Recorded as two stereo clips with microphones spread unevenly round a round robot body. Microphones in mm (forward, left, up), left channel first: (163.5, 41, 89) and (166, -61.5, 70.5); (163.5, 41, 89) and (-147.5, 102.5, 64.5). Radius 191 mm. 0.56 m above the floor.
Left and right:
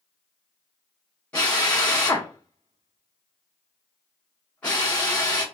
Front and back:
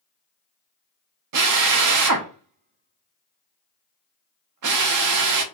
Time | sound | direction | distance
1.3 | a drill | 175° left | 0.8 m